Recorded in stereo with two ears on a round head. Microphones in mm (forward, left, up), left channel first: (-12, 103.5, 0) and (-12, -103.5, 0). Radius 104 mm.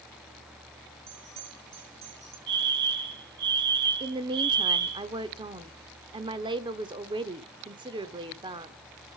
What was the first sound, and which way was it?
A bell, 75° right (ahead or behind).